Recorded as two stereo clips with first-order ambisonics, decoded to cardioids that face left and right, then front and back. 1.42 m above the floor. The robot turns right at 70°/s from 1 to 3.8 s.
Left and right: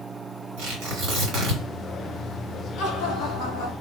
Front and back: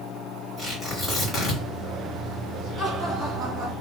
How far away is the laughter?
About 1.3 m.